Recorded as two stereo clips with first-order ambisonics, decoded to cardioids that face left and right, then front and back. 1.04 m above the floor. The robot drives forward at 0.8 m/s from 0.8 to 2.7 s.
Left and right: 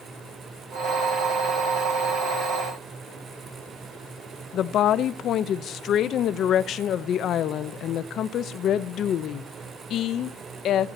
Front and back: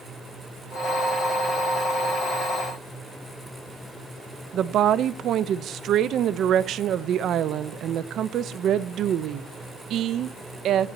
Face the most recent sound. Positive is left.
turn(degrees=135)